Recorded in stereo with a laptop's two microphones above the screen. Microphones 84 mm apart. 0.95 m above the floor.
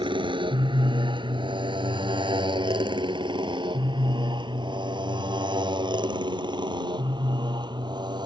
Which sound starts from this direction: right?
A motorcycle, at 0.0 s.